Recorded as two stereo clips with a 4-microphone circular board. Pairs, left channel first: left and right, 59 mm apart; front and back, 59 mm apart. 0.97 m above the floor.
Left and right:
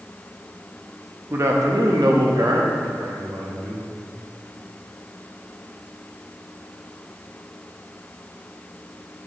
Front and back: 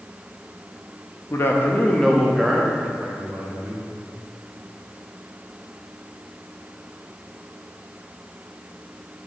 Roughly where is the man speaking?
Ahead right.